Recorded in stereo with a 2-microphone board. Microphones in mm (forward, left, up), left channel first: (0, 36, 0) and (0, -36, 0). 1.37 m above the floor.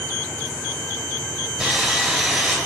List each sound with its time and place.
1.6 s sawing: 10° right (ahead or behind), 2 m